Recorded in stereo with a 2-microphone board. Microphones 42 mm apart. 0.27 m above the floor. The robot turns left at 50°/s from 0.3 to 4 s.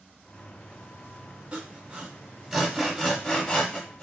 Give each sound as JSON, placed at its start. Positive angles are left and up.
{"t": 1.5, "sound": "sawing", "side_deg": -30, "distance_m": 0.9}